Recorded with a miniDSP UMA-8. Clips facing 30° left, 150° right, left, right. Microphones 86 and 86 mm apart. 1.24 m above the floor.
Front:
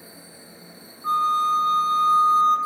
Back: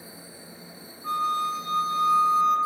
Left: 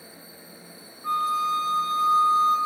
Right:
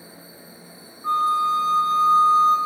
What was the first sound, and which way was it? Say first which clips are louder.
A flute: front 6 dB, right 4 dB; 25° right.